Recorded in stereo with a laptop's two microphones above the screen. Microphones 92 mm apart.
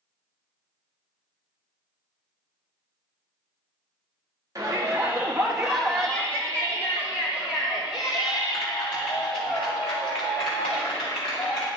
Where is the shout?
35° right (ahead or behind), 2 m; by 11.7 s 75° left (ahead or behind), 6 m.